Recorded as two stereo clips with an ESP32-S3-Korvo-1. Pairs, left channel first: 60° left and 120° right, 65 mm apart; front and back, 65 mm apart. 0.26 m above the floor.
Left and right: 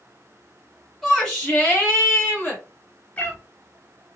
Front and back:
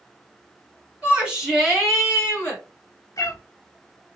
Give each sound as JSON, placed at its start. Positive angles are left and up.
{"t": 1.0, "sound": "a shout", "azimuth_deg": 140, "distance_m": 1.2}
{"t": 3.2, "sound": "a cat meowing", "azimuth_deg": 0, "distance_m": 0.7}